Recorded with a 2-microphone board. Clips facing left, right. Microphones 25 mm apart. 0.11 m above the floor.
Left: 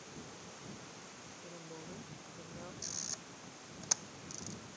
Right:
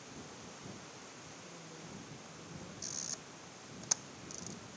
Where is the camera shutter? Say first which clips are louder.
Right 1 dB; 5° left (ahead or behind).